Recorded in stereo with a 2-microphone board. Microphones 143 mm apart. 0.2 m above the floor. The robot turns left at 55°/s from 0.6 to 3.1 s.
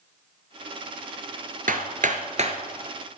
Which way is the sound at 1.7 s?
75° right (ahead or behind).